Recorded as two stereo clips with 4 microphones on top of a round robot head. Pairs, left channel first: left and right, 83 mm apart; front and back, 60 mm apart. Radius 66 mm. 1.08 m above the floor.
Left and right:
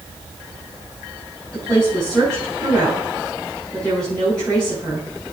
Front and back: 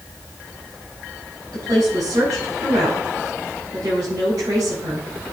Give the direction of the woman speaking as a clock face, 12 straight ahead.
6 o'clock.